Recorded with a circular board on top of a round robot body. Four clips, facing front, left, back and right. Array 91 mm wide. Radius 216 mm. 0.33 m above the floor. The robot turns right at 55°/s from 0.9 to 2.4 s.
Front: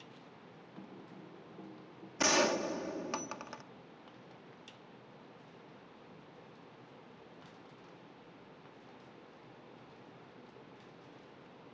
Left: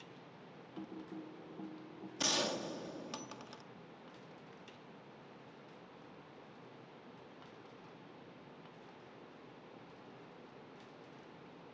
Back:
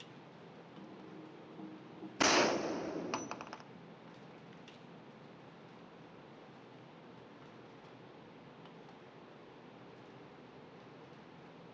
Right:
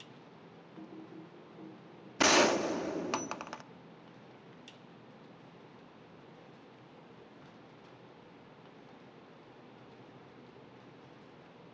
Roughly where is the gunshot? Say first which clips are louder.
Right 12 dB, even; right.